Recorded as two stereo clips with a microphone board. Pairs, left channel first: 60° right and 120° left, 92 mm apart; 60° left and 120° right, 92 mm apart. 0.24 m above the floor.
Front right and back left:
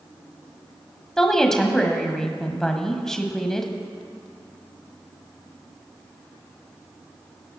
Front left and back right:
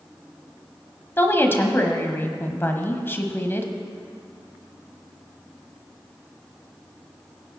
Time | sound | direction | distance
1.2 | a woman speaking | 20° left | 1.3 m